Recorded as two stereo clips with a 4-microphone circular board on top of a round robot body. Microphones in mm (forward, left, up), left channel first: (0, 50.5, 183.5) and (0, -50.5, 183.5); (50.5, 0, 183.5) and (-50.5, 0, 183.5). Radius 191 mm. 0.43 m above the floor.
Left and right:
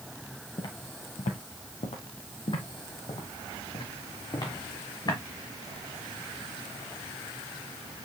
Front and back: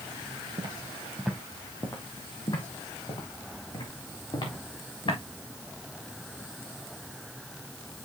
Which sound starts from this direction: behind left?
Footsteps, at 0.6 s.